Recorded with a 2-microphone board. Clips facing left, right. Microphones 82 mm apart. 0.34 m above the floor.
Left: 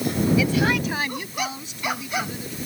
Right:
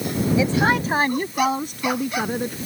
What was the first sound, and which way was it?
A woman speaking, 30° right (ahead or behind).